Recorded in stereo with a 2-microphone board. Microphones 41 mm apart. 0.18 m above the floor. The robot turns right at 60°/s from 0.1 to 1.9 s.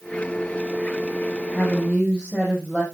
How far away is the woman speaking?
About 6.5 m.